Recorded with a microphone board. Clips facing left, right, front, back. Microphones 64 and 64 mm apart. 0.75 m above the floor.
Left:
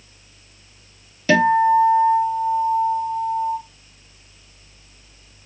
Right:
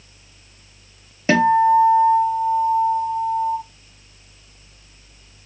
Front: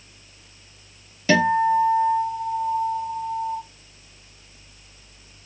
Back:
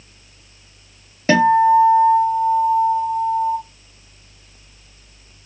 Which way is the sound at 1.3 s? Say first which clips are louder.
Right 1 dB, back 6 dB; 140° right.